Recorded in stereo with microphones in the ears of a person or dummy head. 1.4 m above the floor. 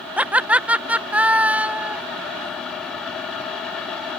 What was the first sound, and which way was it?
Laughter, 5° right (ahead or behind).